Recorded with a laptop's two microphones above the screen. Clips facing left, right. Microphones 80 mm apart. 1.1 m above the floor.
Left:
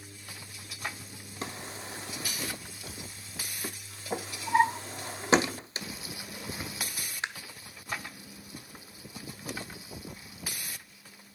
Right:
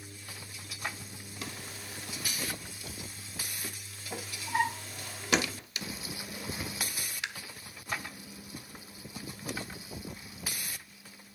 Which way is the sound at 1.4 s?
30° left (ahead or behind).